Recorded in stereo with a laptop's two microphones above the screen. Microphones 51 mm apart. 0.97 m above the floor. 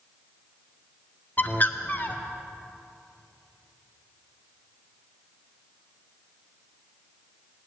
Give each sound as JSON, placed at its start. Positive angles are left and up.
{"t": 1.4, "sound": "a bird", "side_deg": 40, "distance_m": 0.6}